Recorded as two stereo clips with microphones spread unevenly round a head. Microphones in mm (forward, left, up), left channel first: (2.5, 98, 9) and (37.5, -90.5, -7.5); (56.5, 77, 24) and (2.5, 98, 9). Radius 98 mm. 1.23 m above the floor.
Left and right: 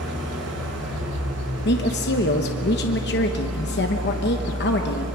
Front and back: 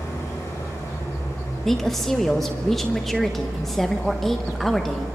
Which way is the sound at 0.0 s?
75° right.